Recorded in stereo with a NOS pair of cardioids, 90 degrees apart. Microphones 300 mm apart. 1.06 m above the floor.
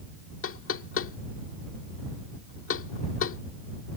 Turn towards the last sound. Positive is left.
turn(degrees=45)